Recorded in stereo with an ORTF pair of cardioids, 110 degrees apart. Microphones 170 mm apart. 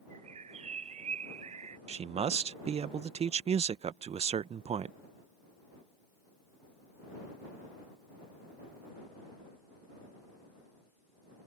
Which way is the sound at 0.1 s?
40° right.